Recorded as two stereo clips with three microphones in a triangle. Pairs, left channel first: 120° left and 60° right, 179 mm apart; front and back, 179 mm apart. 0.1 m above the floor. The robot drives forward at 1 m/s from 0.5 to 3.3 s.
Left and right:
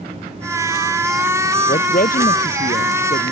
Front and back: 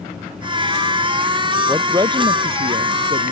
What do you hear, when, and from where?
1.7 s a woman speaking: 110° left; by 3.3 s 145° left